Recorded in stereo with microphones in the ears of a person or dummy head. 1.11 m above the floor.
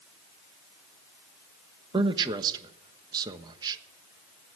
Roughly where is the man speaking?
Right.